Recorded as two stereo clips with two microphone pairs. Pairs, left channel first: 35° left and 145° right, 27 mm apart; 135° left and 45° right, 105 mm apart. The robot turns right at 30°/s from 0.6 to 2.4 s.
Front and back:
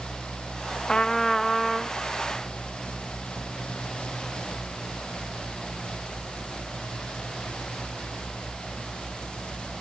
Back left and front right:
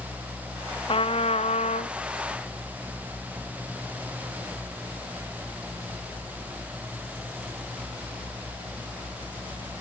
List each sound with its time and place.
0.9 s a trumpet: 100° left; by 1.9 s 130° left